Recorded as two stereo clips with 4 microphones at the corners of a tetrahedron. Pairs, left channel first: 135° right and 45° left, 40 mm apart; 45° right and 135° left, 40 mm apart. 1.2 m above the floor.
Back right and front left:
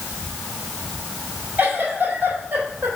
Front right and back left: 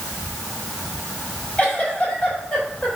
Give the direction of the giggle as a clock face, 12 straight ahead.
11 o'clock.